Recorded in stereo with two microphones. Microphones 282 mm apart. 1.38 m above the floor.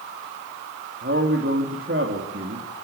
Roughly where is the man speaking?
Right.